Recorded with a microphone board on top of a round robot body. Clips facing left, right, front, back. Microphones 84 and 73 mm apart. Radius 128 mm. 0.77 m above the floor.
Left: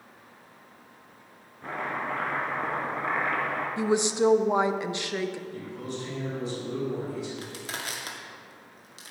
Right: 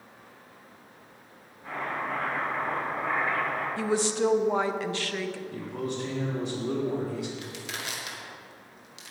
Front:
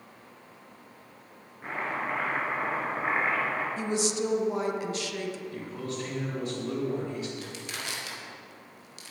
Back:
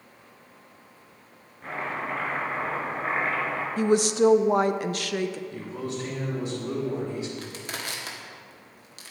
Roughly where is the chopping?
Left.